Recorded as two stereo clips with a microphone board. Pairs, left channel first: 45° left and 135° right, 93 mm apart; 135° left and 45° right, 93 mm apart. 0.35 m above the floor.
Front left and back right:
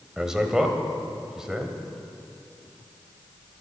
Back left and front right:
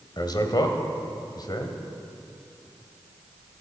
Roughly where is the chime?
I don't hear a chime.